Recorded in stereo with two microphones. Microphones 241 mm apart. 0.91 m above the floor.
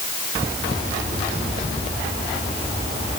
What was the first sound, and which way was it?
Only background noise.